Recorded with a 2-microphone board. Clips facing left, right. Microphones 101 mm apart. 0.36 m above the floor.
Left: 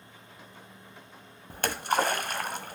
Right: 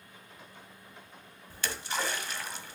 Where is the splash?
55° left (ahead or behind), 1.0 m.